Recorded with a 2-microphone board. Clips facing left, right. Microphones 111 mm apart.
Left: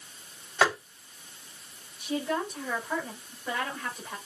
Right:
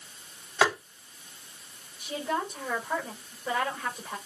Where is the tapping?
5° right (ahead or behind), 3.5 m.